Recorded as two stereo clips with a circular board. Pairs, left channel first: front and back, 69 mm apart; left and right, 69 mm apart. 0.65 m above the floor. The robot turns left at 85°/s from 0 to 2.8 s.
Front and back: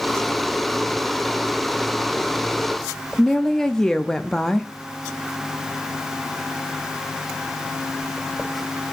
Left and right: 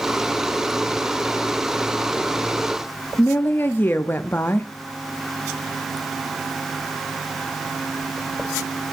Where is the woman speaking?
75° left, 0.5 m.